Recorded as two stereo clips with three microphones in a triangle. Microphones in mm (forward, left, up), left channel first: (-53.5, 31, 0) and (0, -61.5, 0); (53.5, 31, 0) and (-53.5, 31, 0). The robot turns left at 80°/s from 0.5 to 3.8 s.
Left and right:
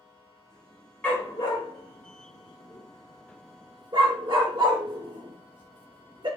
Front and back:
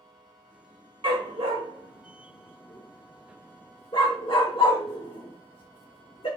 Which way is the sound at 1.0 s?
165° right.